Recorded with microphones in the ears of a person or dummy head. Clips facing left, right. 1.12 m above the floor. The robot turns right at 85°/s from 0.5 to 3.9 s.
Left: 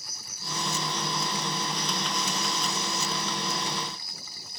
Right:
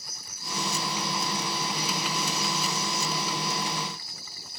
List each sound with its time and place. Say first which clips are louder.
0.0 s an insect: even; 90° left, 3.5 m; by 4.6 s 20° left, 3.5 m